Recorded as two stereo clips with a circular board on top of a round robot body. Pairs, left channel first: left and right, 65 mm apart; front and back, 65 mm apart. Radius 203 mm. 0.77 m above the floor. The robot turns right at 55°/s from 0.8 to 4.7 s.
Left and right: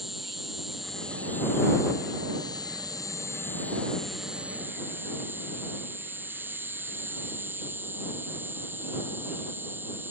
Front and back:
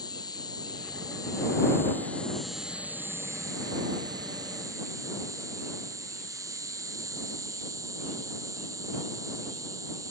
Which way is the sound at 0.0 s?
Straight ahead.